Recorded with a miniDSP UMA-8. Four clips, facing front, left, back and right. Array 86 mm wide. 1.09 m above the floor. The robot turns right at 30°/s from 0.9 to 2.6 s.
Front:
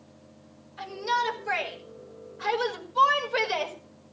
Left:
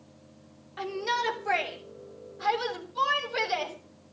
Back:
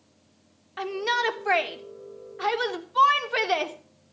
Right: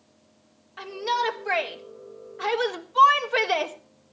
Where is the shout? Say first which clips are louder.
Right 3 dB, back 1 dB; 175° left, 3.5 m; by 3.8 s 130° right, 3.5 m.